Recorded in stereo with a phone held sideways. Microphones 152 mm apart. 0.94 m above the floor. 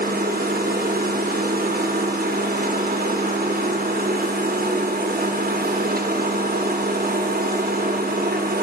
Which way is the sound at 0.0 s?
75° right (ahead or behind).